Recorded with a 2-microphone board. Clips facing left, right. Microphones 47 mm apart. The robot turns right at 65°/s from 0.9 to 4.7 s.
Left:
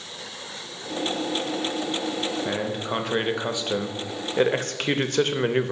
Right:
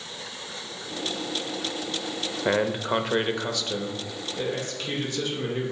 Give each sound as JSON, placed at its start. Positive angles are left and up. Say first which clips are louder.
{"t": 2.5, "sound": "a man speaking", "louder": "right 3 dB", "azimuth_deg": -50, "distance_m": 0.6}